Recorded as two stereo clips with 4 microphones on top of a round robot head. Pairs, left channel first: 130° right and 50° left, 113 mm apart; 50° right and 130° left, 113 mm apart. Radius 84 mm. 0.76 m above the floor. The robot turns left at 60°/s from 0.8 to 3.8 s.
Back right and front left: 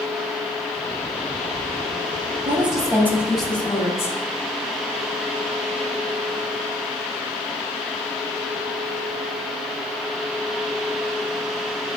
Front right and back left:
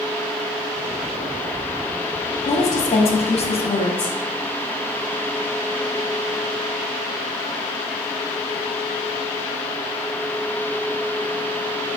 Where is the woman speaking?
15° left, 1.6 m; by 4.2 s 65° right, 1.6 m.